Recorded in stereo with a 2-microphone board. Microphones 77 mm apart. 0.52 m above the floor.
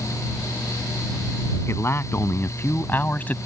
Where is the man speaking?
35° left (ahead or behind); by 3.4 s 20° left (ahead or behind).